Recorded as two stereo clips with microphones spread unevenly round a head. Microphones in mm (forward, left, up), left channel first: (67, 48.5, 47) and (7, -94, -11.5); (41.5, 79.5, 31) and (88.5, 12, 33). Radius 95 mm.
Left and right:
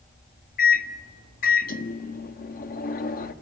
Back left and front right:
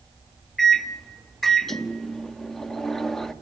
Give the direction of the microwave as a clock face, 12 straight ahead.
11 o'clock.